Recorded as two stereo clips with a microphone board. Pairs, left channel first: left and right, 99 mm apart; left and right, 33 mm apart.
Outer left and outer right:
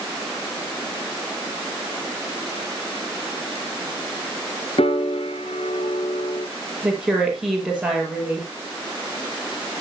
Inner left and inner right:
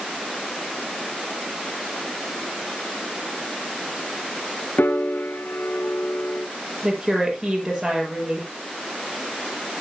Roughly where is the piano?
Left.